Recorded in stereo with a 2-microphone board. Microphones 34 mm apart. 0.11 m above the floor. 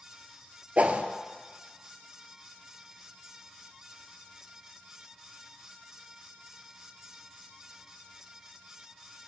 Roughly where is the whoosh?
Right.